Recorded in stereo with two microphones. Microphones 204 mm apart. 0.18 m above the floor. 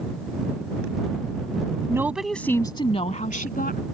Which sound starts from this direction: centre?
A woman speaking, at 1.9 s.